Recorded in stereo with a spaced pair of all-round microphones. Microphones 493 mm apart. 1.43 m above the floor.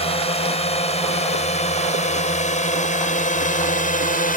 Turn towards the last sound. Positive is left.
turn(degrees=15)  # may be behind; listen again after turning